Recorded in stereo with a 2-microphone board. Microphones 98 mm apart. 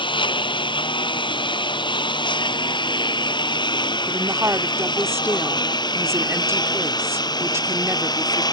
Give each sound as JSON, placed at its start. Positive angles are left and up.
{"t": 0.0, "sound": "a lawn mower", "side_deg": 55}
{"t": 4.1, "sound": "a woman speaking", "side_deg": -25}